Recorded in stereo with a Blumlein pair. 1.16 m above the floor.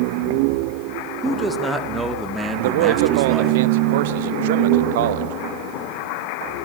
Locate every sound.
1.2 s a man speaking: 10° right, 1.9 m
2.6 s a man speaking: 55° right, 1.1 m